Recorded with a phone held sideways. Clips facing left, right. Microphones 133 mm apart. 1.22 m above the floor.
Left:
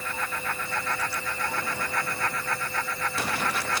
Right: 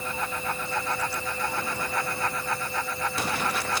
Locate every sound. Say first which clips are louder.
0.0 s a fan: right 2 dB; 20° right (ahead or behind)